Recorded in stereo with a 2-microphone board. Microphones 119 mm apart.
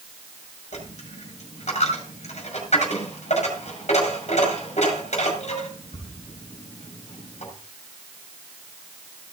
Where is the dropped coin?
70° left (ahead or behind), 5.5 m.